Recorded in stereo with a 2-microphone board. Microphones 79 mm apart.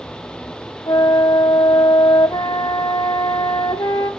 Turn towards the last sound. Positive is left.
turn(degrees=60)  # may be behind; listen again after turning